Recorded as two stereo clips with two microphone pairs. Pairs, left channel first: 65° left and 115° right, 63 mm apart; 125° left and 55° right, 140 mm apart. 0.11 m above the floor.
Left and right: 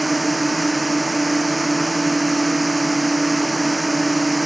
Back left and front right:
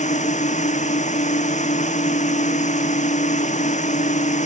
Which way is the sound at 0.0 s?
155° left.